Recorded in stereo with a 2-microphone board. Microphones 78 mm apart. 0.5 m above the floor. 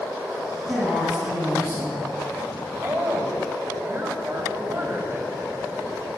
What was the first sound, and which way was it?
A woman speaking, 10° right (ahead or behind).